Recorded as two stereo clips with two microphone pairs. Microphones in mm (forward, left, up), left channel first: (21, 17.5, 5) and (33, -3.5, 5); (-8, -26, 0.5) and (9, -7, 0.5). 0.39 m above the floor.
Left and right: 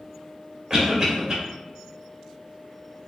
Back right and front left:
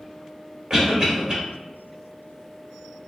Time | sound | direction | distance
0.7 | a cough | 5° right | 1.3 m